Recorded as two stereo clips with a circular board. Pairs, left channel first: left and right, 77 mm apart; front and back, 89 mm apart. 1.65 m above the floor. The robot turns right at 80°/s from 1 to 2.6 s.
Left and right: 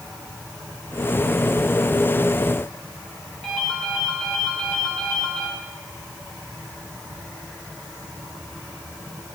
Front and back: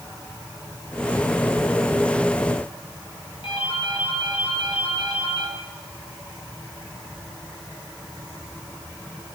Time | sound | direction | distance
3.4 | a ringtone | 10° left | 9.5 m